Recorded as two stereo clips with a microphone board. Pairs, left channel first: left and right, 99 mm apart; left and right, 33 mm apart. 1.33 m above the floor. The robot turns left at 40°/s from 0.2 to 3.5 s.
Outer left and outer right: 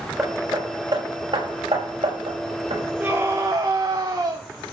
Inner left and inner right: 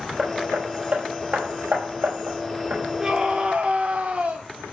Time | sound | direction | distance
0.2 | hammering | 15° right (ahead or behind) | 5 m
3.0 | a scream | 20° right (ahead or behind) | 1.3 m